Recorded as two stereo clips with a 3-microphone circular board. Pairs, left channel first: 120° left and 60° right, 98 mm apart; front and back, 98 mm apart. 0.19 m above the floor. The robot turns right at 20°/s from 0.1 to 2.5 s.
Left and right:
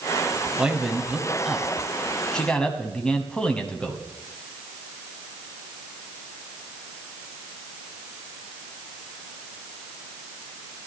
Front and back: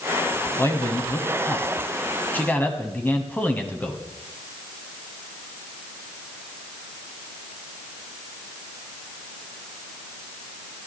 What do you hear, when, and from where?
0.6 s a man speaking: 10° left, 1.3 m; by 4.0 s 50° left, 1.3 m